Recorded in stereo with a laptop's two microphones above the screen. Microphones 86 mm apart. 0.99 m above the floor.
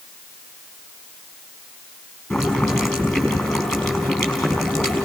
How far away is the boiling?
About 5 m.